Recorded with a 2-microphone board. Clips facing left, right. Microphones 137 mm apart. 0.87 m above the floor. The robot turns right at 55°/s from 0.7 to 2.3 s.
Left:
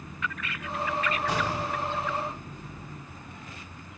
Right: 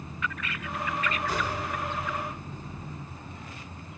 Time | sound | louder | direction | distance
1.3 | an explosion | left 2 dB | 70° left | 4 m